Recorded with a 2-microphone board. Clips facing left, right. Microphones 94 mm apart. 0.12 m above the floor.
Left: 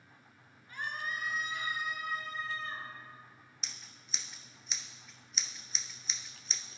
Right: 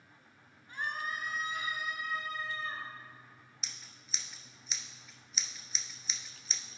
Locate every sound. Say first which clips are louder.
0.7 s a scream: right 1 dB; 30° right (ahead or behind), 1.6 m; by 2.9 s 60° right (ahead or behind), 3 m
3.6 s scissors: left 1 dB; centre (ahead or behind), 0.6 m